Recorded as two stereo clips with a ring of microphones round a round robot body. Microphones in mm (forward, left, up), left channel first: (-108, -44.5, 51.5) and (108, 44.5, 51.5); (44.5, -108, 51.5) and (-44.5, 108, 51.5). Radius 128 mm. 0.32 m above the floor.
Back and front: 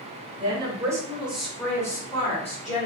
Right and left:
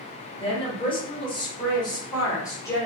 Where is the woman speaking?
20° right, 1.6 m; by 2.9 s 135° right, 1.7 m.